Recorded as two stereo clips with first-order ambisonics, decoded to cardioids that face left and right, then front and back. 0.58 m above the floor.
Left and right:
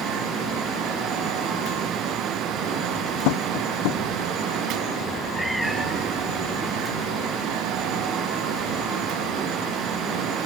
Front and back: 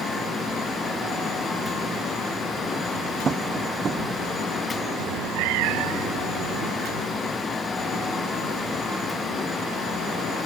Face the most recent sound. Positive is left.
turn(degrees=180)